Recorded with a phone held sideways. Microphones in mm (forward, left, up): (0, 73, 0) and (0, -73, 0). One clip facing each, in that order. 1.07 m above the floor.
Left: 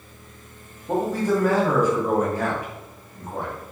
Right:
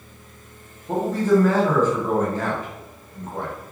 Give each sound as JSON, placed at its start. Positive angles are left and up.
{"t": 0.9, "sound": "a man speaking", "side_deg": 10, "distance_m": 0.9}